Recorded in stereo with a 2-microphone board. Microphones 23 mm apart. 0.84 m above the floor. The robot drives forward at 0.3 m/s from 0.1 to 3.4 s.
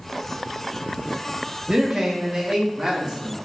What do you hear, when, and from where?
1.7 s a man speaking: 35° right (ahead or behind), 0.6 m; by 3.4 s 25° right (ahead or behind), 0.9 m